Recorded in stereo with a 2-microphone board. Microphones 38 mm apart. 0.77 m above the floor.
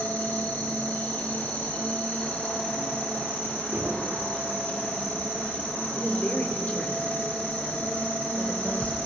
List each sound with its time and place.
0.0 s an insect: 65° left (ahead or behind), 4.5 m
3.7 s knocking: 75° right (ahead or behind), 7.5 m
6.0 s a woman speaking: 40° left (ahead or behind), 3.5 m